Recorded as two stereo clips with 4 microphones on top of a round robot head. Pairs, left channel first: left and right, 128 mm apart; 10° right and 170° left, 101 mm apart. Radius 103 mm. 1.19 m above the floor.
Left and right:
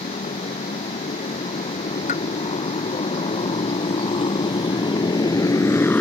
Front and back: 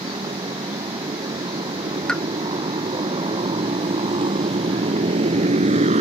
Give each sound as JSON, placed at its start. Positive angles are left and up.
{"t": 0.0, "sound": "a motorcycle", "azimuth_deg": 130}
{"t": 2.1, "sound": "a pop", "azimuth_deg": 70}